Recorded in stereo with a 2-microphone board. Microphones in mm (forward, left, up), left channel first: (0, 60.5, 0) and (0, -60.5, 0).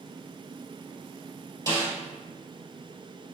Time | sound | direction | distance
1.7 | a snare drum | 30° right (ahead or behind) | 1.9 m